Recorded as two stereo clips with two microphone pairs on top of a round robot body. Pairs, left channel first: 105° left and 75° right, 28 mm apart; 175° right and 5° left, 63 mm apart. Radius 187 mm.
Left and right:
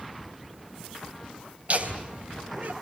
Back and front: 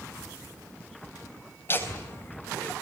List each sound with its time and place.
1.7 s laughter: 120° right, 3 m; by 2.7 s 115° right, 2.5 m